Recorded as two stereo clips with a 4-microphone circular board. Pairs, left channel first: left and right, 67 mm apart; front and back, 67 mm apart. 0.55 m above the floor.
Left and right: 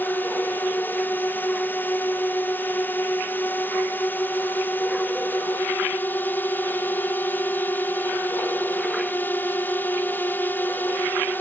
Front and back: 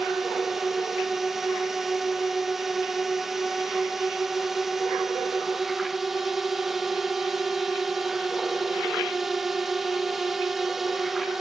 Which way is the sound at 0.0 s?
100° left.